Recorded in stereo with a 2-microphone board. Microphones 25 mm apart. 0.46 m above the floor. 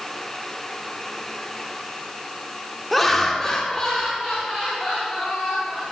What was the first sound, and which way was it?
Laughter, 5° left (ahead or behind).